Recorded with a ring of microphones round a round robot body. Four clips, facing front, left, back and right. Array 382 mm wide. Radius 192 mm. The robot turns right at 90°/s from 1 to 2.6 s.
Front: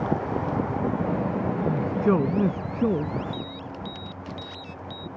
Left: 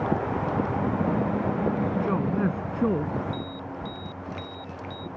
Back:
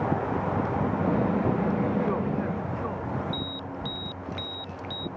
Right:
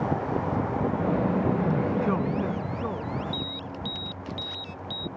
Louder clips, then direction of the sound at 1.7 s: Right 1 dB, front 3 dB; 45° right.